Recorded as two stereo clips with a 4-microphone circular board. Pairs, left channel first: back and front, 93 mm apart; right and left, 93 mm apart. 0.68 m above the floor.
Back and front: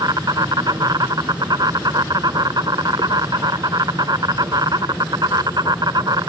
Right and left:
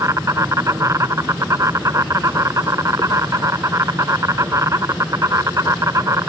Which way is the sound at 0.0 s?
35° left.